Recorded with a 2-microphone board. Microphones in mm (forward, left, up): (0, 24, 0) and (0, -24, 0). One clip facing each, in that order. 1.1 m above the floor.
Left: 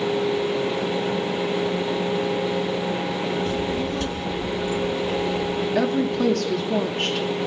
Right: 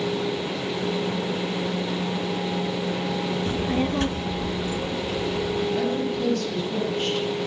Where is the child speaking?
25° right (ahead or behind), 0.6 m; by 5.7 s 30° right (ahead or behind), 2 m.